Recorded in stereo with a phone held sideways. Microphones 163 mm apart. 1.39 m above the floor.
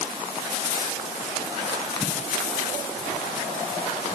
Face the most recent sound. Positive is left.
No sound to turn to.